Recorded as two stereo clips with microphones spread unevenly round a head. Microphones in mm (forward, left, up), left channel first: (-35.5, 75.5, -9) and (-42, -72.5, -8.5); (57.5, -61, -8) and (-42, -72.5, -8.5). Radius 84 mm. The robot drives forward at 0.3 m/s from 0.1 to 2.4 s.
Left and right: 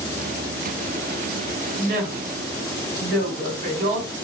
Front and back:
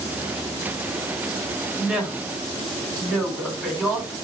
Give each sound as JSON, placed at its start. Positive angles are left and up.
{"t": 1.8, "sound": "a woman speaking", "azimuth_deg": -85, "distance_m": 1.8}